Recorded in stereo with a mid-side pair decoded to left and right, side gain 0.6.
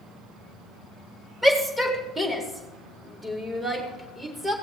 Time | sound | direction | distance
1.4 | a shout | 15° right | 3 m